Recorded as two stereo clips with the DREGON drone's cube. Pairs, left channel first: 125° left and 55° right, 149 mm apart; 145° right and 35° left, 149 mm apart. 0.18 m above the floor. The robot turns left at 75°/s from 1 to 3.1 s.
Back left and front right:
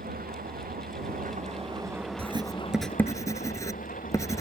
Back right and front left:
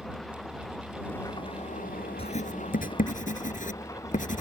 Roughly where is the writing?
Right.